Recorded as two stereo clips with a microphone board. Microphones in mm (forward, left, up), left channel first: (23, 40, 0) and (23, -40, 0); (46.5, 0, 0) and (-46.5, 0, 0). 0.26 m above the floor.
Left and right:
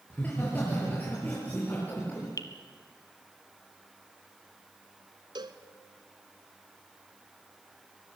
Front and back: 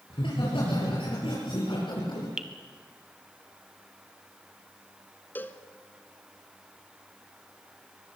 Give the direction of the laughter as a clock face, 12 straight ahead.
11 o'clock.